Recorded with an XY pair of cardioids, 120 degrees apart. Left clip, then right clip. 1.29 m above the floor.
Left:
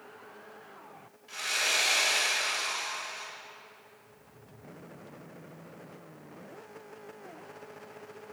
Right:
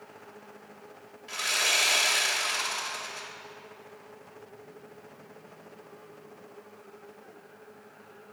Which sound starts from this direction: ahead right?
Sawing, at 1.3 s.